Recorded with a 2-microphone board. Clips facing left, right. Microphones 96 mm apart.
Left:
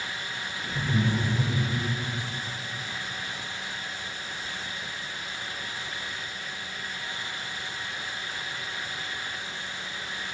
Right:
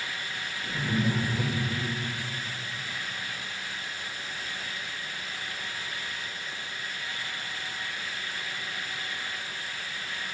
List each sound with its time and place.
0.7 s laughter: 50° right (ahead or behind), 2.5 m; by 1.9 s 20° right (ahead or behind), 1.4 m